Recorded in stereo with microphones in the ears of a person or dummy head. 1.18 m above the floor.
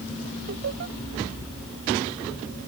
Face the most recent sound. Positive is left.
turn(degrees=-55)  # may be behind; listen again after turning